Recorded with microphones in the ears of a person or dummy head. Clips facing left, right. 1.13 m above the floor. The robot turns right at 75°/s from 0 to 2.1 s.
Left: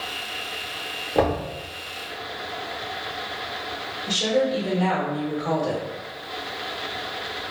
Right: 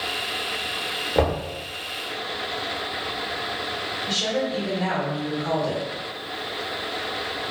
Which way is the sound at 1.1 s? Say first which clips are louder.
Left 1 dB; centre (ahead or behind).